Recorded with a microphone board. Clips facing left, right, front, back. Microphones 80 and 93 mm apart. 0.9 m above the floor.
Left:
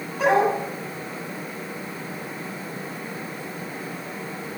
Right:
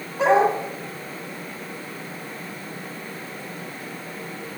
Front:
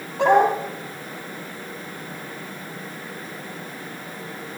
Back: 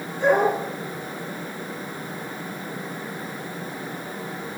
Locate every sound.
0.2 s a dog barking: 20° right, 8.5 m